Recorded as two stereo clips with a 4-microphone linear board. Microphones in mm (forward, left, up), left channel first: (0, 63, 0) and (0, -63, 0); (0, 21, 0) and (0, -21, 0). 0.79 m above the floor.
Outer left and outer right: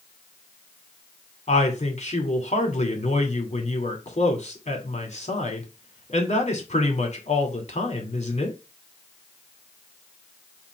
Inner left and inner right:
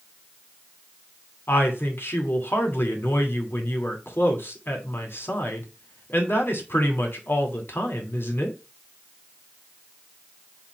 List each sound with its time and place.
1.5 s a woman speaking: 65° left (ahead or behind), 2.5 m